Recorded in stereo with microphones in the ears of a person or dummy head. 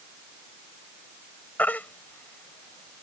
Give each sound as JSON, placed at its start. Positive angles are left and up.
{"t": 1.6, "sound": "a baby crying", "side_deg": 10}